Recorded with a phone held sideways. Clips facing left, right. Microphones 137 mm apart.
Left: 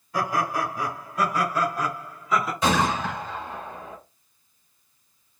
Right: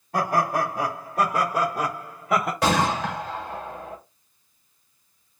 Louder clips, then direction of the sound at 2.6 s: Right 1 dB; 75° right (ahead or behind).